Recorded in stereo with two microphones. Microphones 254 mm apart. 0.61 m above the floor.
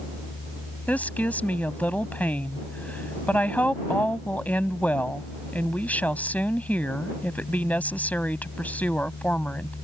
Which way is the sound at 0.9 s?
5° left (ahead or behind).